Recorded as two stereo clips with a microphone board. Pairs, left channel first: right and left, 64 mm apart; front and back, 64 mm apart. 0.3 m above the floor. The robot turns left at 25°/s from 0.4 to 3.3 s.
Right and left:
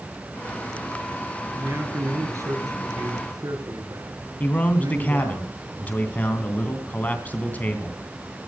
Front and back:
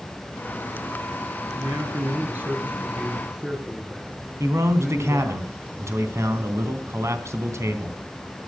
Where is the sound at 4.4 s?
150° right, 3 m.